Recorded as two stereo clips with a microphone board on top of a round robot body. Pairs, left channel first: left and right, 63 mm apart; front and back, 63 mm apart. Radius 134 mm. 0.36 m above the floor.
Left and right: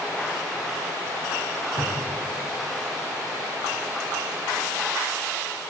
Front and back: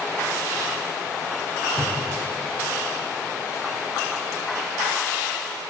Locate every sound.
1.8 s a cupboard door: 90° left, 4.5 m